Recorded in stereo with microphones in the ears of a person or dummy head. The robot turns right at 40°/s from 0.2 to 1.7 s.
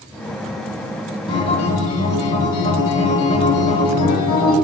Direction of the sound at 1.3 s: 30° left (ahead or behind).